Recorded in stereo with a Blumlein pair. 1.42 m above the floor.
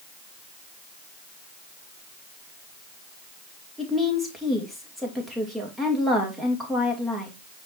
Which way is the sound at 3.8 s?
5° right.